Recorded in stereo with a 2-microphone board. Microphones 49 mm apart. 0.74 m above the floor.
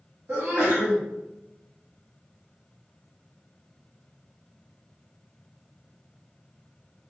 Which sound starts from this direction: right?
A sneeze, at 0.3 s.